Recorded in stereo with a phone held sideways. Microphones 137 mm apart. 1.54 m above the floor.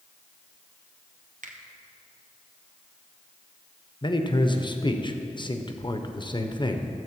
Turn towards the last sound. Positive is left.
turn(degrees=35)  # may be behind; listen again after turning